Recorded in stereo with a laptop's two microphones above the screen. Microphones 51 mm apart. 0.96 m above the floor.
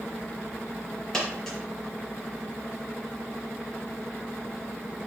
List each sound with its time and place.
1.1 s a dropped coin: 5° left (ahead or behind), 4 m